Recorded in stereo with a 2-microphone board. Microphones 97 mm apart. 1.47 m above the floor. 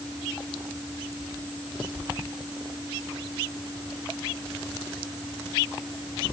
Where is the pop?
I don't hear a pop.